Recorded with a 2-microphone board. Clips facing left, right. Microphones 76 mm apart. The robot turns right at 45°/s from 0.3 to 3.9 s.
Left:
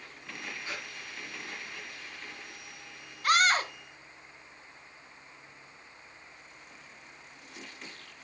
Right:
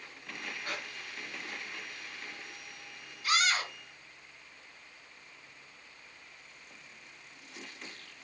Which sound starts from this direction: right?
Breathing, at 0.6 s.